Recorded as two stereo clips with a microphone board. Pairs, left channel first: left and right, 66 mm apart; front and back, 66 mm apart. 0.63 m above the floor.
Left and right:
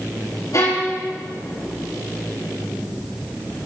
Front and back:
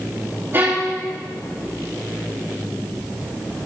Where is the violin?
120° left, 8 m.